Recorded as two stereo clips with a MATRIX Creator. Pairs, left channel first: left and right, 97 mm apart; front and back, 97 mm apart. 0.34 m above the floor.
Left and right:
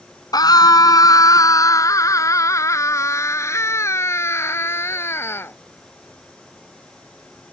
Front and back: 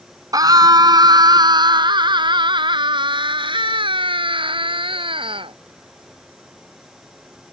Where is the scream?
135° left; by 5.6 s 155° left.